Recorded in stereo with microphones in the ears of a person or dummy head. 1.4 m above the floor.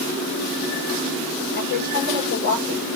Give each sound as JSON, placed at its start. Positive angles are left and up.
{"t": 1.6, "sound": "a woman speaking", "side_deg": 55, "distance_m": 5.5}